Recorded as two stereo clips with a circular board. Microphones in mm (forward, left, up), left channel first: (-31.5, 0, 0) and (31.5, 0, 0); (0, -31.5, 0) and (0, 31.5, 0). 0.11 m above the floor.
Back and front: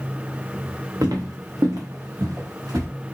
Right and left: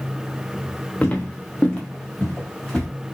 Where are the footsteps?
20° right, 0.8 m; by 2.9 s 10° right, 2.0 m.